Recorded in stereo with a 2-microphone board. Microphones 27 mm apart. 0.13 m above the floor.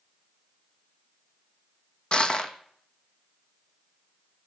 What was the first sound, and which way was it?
Crushing, 35° left (ahead or behind).